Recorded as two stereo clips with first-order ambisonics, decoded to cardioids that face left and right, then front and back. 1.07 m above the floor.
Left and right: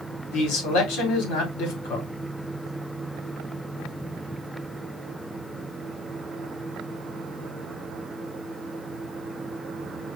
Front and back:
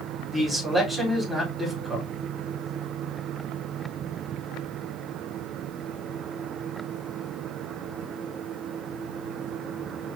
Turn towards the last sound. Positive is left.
turn(degrees=95)